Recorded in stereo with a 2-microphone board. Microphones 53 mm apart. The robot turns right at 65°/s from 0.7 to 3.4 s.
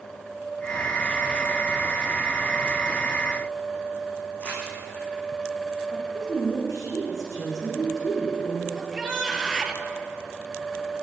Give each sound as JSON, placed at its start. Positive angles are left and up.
{"t": 4.4, "sound": "crumpling", "side_deg": 30, "distance_m": 7.5}
{"t": 5.9, "sound": "a woman speaking", "side_deg": 80, "distance_m": 8.0}
{"t": 8.8, "sound": "a shout", "side_deg": -5, "distance_m": 3.0}